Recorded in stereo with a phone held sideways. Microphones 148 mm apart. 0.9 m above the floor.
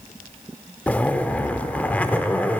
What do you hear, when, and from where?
0.9 s a zipper: 10° left (ahead or behind), 0.6 m